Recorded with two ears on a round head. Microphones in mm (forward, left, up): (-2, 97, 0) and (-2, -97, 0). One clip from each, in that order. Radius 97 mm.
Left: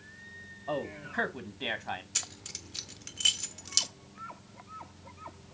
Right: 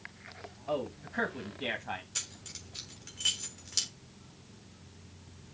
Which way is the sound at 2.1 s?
30° left (ahead or behind).